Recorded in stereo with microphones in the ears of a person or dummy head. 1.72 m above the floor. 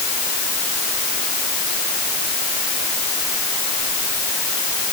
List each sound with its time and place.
Only background noise.